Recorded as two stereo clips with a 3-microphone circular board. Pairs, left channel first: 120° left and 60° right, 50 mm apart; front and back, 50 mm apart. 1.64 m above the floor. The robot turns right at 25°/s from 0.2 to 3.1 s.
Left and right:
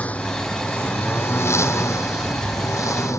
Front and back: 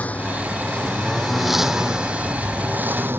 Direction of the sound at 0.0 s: 60° left.